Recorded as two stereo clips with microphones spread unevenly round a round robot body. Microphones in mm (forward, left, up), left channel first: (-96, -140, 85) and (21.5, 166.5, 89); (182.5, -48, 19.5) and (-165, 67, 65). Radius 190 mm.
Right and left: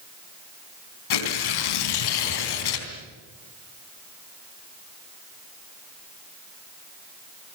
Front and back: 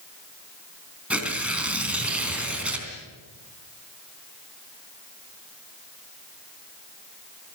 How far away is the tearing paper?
About 3.5 m.